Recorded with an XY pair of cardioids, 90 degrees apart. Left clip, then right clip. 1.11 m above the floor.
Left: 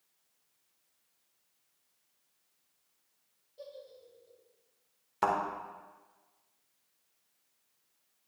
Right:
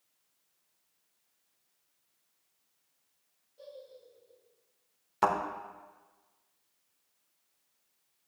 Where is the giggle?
55° left, 2.5 m.